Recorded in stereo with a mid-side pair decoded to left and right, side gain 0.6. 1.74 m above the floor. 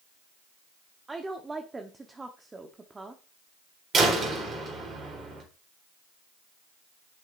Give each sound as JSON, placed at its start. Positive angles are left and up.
{"t": 1.1, "sound": "a woman speaking", "azimuth_deg": -20, "distance_m": 1.1}
{"t": 3.9, "sound": "a door slam", "azimuth_deg": -40, "distance_m": 3.5}